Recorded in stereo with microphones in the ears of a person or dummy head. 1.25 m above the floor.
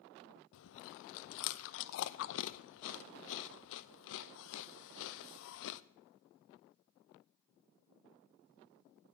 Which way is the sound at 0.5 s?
75° left (ahead or behind).